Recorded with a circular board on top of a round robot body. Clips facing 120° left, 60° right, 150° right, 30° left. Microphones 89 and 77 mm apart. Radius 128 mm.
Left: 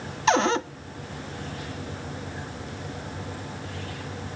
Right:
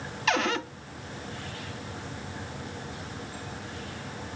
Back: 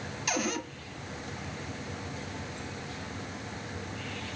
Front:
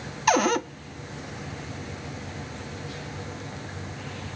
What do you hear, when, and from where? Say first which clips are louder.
0.3 s a cupboard door: left 6 dB, front 11 dB; 60° left, 0.7 m